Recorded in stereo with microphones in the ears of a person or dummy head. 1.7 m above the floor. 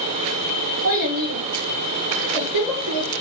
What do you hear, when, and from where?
0.8 s a child speaking: 70° right (ahead or behind), 1.9 m; by 3.1 s 80° right, 4 m